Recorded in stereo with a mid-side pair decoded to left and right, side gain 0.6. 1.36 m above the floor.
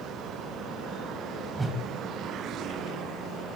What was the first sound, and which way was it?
A whoosh, 20° right.